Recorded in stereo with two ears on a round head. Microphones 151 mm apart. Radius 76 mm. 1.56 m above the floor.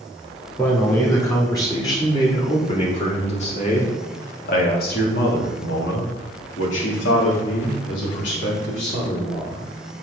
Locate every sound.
0.6 s a man speaking: 15° left (ahead or behind), 4 m; by 9.6 s 65° left (ahead or behind), 4 m